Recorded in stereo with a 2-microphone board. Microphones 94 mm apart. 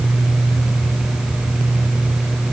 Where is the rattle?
I don't hear a rattle.